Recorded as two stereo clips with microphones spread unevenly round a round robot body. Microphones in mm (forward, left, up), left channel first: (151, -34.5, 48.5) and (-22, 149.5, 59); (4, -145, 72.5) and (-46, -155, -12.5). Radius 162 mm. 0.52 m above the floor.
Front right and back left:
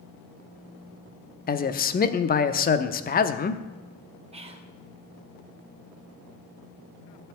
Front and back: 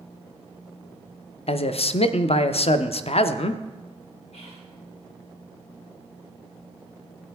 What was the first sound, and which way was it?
A man speaking, 45° right.